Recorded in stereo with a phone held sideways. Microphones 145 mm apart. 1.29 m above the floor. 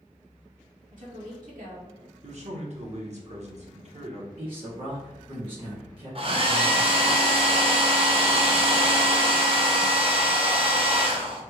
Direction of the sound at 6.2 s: 40° right (ahead or behind).